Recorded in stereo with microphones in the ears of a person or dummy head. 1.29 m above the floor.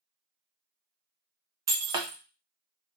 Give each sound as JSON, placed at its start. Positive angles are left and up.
{"t": 1.7, "sound": "breaking glass", "side_deg": -25, "distance_m": 0.6}